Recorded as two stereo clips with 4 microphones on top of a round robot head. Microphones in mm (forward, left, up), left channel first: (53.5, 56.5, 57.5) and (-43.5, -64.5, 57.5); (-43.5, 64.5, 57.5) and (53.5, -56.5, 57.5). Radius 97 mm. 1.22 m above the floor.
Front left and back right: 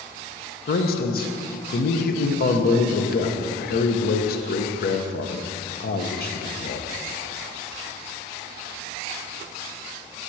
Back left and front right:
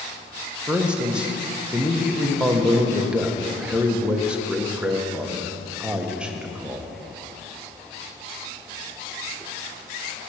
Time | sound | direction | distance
0.7 | a man speaking | 35° left | 1.0 m